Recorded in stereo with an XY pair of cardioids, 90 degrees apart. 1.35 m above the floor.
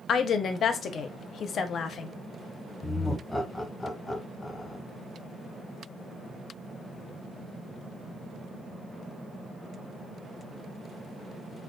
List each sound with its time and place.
0.1 s a woman speaking: 65° left, 0.5 m
2.8 s laughter: 25° left, 1.2 m